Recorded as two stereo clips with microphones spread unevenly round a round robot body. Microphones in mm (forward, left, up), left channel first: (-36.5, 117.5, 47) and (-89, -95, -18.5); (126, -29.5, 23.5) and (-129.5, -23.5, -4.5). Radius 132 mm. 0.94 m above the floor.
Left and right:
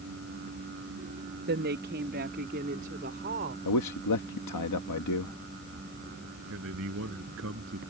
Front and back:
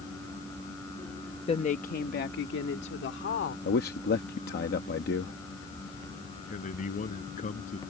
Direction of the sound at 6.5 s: 65° right.